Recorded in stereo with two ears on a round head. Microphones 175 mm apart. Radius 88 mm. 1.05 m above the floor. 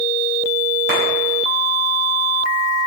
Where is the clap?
60° right (ahead or behind), 6 m.